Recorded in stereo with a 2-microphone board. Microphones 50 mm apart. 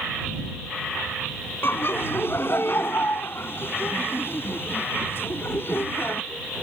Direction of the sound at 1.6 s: 50° left (ahead or behind).